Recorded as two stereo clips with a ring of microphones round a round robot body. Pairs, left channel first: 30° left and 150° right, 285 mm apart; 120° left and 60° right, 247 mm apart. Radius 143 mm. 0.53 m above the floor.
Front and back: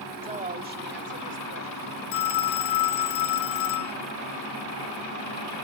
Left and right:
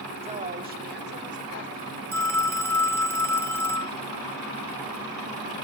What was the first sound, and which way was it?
A woman speaking, 100° right.